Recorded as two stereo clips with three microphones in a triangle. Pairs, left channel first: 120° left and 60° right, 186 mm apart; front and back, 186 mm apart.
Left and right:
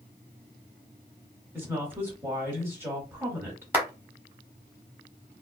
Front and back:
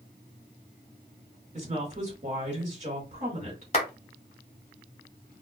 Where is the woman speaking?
135° right, 1.3 m.